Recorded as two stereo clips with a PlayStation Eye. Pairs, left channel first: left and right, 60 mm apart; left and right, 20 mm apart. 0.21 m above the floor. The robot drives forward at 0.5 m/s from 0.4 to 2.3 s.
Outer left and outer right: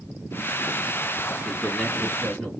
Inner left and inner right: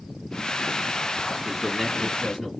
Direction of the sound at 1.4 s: 15° left (ahead or behind).